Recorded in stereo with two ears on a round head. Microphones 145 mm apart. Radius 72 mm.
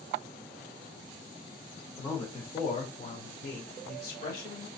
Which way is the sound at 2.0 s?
20° left (ahead or behind).